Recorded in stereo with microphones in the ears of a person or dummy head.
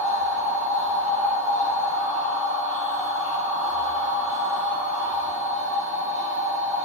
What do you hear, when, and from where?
0.0 s a machine running: 40° right (ahead or behind), 1.6 m